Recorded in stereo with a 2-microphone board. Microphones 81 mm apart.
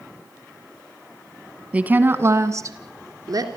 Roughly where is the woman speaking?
Centre.